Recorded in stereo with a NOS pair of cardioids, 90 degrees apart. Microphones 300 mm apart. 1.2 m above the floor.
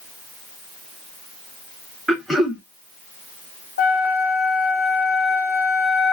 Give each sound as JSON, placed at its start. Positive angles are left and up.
{"t": 2.1, "sound": "throat clearing", "azimuth_deg": 0, "distance_m": 0.9}
{"t": 3.8, "sound": "a flute", "azimuth_deg": 35, "distance_m": 0.9}